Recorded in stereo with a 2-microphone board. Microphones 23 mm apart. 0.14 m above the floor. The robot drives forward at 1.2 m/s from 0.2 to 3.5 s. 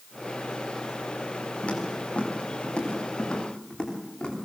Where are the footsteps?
60° left (ahead or behind), 7.5 m; by 4.3 s 35° left (ahead or behind), 10 m.